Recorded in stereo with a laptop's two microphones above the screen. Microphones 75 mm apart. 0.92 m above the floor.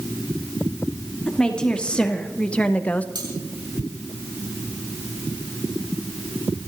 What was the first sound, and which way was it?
A woman speaking, 15° left (ahead or behind).